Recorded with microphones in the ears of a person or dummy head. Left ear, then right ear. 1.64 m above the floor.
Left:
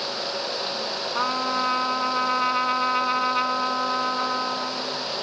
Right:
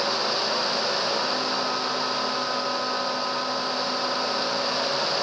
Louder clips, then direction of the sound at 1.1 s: Left 1 dB; 70° left (ahead or behind).